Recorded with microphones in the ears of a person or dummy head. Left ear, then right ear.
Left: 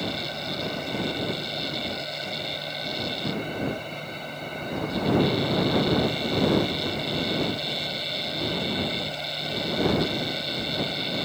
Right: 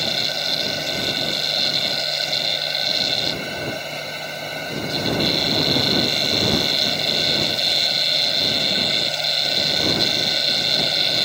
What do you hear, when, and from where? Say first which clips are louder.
0.0 s a machine running: right 9 dB; 45° right (ahead or behind)